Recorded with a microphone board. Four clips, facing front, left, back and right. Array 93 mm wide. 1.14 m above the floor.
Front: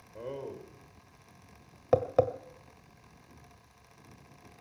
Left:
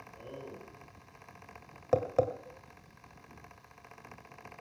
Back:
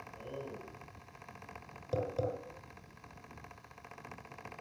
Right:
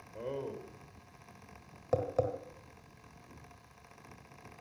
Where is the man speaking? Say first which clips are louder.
Right 8 dB, front 6 dB; 45° right, 4.5 m.